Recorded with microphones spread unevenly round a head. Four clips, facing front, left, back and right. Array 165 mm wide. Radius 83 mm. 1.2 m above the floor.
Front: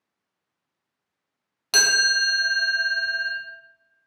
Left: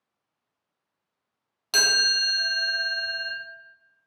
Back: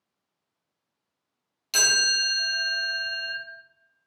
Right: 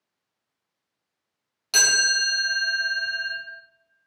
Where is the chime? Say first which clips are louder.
Right 2 dB, front 5 dB; 15° left, 0.6 m.